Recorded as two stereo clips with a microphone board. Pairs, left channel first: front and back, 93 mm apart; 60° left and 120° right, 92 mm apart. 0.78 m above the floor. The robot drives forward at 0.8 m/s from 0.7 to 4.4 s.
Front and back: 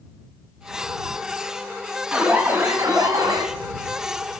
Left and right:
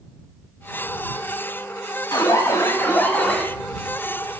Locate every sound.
2.1 s an alarm: 105° left, 1.2 m; by 3.5 s 140° left, 1.8 m